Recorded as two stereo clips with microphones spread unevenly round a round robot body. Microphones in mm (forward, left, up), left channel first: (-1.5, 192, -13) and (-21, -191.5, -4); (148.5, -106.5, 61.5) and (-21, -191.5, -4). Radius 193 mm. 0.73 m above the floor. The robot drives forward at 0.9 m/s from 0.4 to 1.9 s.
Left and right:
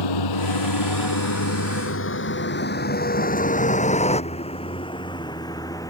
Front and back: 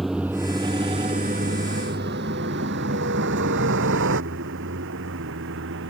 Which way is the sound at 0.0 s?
115° left.